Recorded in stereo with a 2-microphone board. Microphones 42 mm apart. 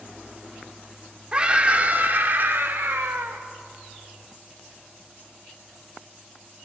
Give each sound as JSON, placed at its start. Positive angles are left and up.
{"t": 1.3, "sound": "a scream", "side_deg": -25, "distance_m": 1.8}